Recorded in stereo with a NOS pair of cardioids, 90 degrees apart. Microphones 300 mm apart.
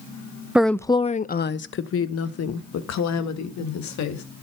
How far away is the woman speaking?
About 0.7 m.